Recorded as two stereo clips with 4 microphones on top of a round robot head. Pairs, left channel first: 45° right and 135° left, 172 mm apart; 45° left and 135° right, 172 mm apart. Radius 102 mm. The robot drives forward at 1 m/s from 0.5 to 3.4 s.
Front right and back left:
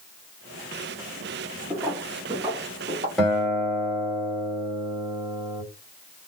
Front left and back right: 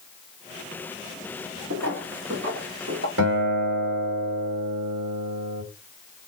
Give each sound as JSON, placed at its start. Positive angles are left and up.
{"t": 1.7, "sound": "footsteps", "azimuth_deg": -150, "distance_m": 1.4}
{"t": 3.2, "sound": "a guitar", "azimuth_deg": -130, "distance_m": 2.0}